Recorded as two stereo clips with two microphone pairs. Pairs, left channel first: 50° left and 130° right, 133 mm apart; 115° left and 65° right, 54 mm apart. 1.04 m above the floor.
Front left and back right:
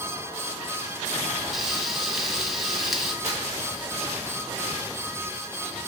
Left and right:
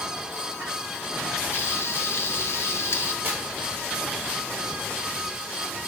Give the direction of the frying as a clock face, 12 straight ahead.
7 o'clock.